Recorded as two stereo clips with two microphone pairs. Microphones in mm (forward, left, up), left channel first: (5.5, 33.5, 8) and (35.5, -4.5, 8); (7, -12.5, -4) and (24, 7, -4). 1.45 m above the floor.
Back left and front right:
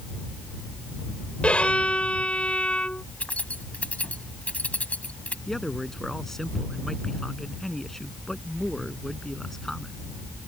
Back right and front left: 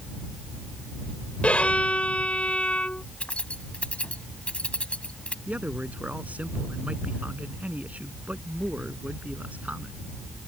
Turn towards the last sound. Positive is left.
turn(degrees=45)